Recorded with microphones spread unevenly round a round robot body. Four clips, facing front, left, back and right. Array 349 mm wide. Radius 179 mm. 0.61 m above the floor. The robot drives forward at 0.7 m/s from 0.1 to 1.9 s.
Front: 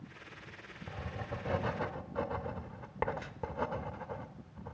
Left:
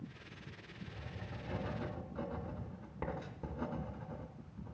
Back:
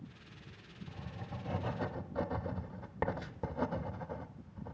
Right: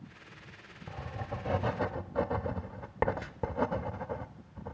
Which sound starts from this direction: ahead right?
Writing, at 0.9 s.